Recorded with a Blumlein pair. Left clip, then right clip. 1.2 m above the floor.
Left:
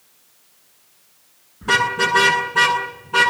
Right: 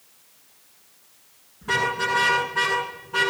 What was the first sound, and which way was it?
A car horn, 25° left.